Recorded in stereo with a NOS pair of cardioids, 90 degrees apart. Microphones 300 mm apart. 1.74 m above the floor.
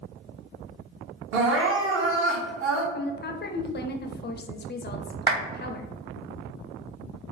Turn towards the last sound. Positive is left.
turn(degrees=-30)